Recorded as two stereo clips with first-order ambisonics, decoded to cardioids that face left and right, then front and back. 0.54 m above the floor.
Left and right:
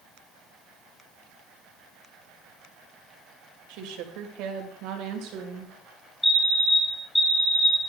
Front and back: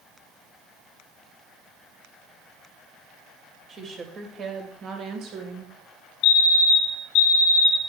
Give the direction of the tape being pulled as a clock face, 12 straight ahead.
No tape being pulled in this recording.